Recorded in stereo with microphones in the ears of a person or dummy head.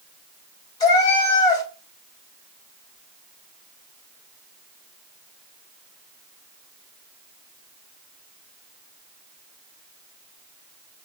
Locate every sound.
0.8 s a cat meowing: 20° left (ahead or behind), 1.9 m